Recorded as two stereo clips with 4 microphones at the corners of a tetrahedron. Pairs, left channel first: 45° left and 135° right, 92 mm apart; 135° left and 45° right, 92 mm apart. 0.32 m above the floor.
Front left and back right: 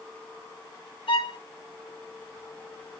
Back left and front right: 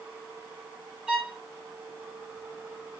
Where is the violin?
35° left, 1.9 m.